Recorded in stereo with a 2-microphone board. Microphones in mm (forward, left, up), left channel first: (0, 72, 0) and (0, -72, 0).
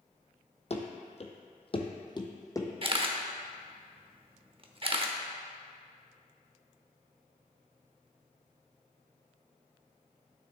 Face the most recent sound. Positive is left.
turn(degrees=-40)  # may be behind; listen again after turning